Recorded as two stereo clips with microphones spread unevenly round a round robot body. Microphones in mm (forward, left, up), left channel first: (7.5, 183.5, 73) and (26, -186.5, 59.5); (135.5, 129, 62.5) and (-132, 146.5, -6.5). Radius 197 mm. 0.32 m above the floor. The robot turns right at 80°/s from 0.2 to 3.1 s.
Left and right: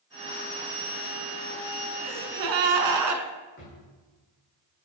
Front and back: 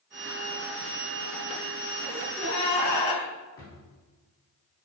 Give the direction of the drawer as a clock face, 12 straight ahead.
11 o'clock.